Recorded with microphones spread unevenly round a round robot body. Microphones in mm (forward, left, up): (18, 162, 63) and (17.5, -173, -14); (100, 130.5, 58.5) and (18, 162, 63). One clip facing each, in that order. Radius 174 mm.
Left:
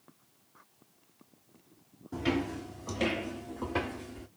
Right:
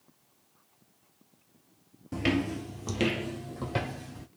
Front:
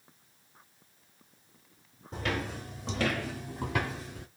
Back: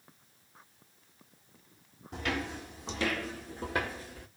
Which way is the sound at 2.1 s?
80° right.